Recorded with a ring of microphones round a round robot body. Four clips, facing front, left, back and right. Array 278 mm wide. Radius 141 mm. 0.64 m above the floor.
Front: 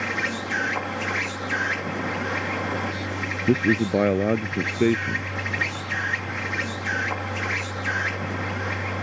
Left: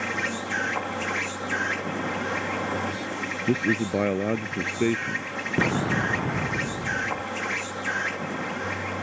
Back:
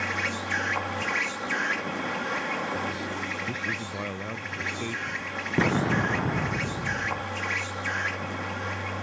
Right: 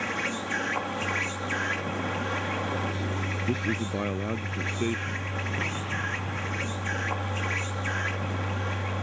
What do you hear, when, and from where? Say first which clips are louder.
0.0 s an insect: left 2 dB, front 3 dB; 30° left
3.5 s a man speaking: left 7 dB, front 13 dB; 20° left
5.6 s an explosion: left 13 dB, back 5 dB; 135° left